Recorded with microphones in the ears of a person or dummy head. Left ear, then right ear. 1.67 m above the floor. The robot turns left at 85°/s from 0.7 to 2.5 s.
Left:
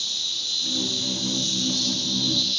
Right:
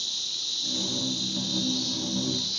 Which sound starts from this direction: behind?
An insect, at 0.0 s.